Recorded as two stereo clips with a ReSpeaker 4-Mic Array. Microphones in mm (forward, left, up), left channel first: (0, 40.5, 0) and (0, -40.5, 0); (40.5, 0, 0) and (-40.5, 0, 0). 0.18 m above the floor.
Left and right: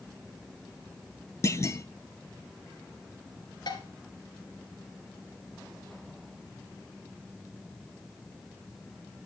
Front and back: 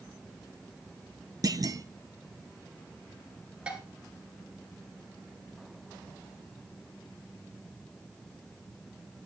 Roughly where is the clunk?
Behind left.